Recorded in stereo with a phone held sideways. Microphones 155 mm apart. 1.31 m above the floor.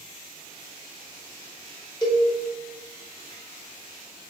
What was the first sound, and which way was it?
A cowbell, 25° left (ahead or behind).